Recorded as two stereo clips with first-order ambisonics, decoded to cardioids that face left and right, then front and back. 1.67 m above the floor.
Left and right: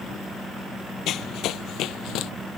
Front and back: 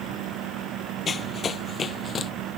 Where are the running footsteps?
60° left.